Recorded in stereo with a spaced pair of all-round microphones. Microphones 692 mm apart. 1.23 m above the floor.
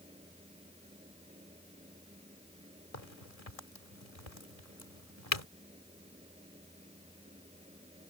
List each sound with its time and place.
0.0 s a fan: 10° right (ahead or behind)
2.9 s a crack: 55° left (ahead or behind)